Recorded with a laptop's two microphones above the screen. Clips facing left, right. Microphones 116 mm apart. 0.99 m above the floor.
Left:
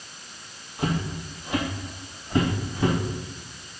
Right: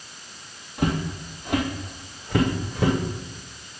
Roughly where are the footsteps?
Right.